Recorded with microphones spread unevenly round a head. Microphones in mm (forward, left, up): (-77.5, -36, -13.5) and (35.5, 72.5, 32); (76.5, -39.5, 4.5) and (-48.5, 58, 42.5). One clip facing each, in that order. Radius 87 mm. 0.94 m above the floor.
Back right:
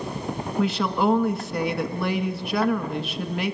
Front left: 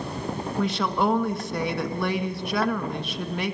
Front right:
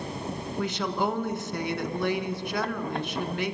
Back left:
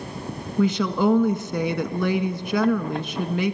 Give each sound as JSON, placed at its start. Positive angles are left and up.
{"t": 0.6, "sound": "a woman speaking", "azimuth_deg": 145, "distance_m": 1.4}